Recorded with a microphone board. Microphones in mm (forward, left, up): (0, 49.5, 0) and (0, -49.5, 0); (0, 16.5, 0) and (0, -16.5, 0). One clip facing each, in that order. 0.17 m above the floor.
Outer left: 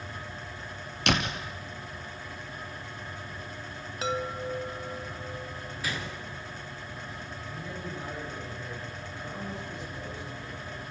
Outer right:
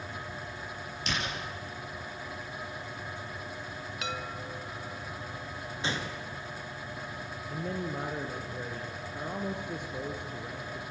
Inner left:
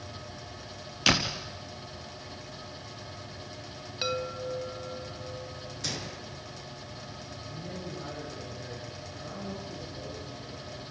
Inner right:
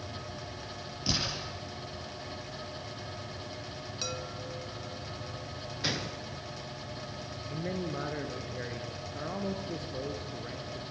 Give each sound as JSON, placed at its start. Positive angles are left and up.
{"t": 1.1, "sound": "a door slam", "side_deg": 70, "distance_m": 2.5}
{"t": 4.0, "sound": "a chime", "side_deg": 35, "distance_m": 0.8}
{"t": 5.8, "sound": "a gunshot", "side_deg": -25, "distance_m": 3.0}
{"t": 7.5, "sound": "a man speaking", "side_deg": -55, "distance_m": 3.5}